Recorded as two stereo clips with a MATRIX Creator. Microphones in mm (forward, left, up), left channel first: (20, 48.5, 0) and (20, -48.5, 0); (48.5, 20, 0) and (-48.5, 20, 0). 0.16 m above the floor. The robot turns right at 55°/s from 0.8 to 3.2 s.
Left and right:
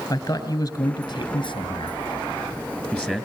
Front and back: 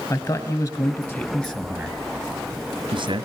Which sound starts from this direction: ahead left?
A man speaking, at 0.1 s.